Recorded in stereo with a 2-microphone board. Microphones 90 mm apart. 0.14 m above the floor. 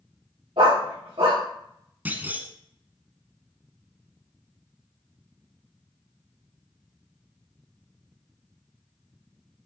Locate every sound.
0.6 s a dog barking: 70° right (ahead or behind), 4.5 m
2.0 s a clunk: 20° right (ahead or behind), 1.1 m